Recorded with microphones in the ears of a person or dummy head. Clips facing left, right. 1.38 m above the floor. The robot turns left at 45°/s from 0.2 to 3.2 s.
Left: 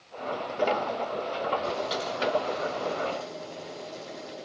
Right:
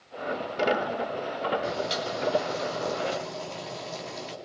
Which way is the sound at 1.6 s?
20° right.